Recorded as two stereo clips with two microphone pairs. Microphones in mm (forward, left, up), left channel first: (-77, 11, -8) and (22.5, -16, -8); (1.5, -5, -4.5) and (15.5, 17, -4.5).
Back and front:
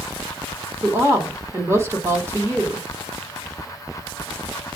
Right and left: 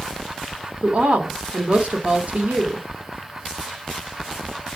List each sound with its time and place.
0.8 s a woman speaking: 45° left, 1.3 m